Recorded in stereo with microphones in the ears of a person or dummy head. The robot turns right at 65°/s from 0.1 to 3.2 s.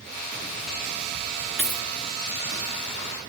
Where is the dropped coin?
5° right (ahead or behind), 1.9 m; by 1.9 s 10° left (ahead or behind), 1.9 m.